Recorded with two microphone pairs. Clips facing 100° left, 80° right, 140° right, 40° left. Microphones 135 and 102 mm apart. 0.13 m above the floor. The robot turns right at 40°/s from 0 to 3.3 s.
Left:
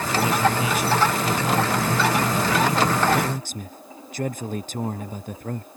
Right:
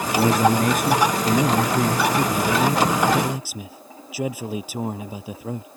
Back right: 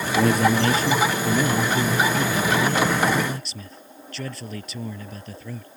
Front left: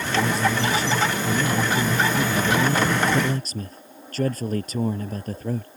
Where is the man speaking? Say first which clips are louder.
Right 4 dB, back right 4 dB; 130° right; by 5.7 s 5° right.